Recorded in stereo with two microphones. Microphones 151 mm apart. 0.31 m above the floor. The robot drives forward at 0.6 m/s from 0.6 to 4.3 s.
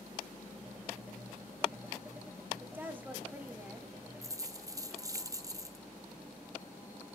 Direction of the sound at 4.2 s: 20° right (ahead or behind).